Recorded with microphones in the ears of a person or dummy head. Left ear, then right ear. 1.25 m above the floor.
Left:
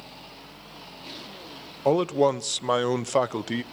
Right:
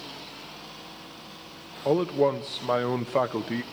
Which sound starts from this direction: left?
A man speaking, at 1.9 s.